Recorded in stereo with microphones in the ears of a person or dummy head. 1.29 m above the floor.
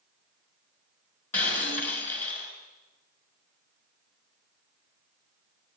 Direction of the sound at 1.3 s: 5° left (ahead or behind).